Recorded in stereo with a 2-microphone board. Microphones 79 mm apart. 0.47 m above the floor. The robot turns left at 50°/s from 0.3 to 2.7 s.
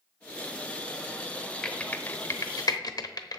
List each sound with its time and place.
1.6 s typing on a keyboard: 5° left (ahead or behind), 0.9 m; by 3.4 s 55° left (ahead or behind), 0.9 m